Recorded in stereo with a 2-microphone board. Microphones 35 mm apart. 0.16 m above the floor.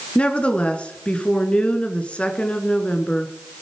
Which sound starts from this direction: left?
A woman speaking, at 0.1 s.